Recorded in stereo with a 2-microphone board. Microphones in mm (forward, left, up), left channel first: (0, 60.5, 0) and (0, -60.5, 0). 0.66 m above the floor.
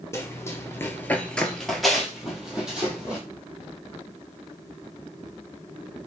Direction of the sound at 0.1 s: 25° left (ahead or behind).